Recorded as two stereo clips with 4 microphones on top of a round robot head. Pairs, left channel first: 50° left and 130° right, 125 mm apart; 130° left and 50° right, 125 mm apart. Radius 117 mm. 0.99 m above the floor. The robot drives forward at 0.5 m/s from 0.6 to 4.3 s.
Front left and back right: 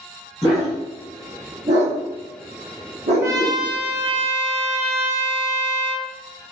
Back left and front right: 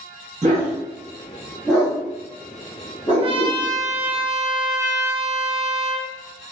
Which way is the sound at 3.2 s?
70° right.